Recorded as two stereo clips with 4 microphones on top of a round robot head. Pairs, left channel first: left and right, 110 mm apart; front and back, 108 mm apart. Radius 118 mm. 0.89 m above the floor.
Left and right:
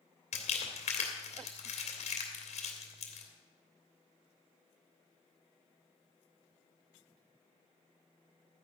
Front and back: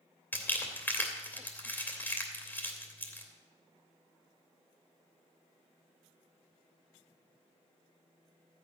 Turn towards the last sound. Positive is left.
turn(degrees=75)